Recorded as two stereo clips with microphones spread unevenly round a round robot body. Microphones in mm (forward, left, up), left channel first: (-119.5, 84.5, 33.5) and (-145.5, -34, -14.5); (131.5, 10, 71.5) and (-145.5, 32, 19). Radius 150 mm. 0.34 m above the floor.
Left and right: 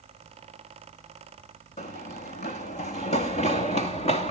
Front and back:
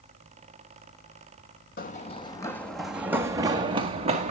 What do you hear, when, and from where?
1.8 s running footsteps: 50° left, 1.1 m; by 4.3 s 105° left, 2 m